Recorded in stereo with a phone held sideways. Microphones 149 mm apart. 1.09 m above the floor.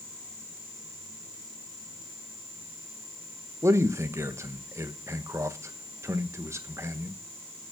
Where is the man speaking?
20° right (ahead or behind), 1.2 m.